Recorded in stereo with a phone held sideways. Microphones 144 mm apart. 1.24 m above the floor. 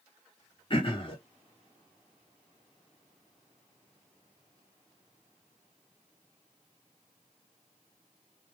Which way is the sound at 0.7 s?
40° left (ahead or behind).